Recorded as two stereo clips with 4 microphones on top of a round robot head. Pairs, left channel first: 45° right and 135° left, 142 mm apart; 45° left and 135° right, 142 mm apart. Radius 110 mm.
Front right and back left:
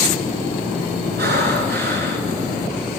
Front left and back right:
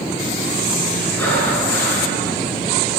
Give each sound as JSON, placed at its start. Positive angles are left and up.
{"t": 1.2, "sound": "breathing", "azimuth_deg": 125, "distance_m": 7.0}